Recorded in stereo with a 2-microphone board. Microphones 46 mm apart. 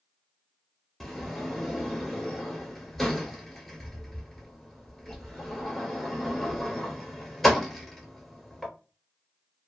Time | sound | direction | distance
1.0 | a sliding door | 5° left (ahead or behind) | 0.8 m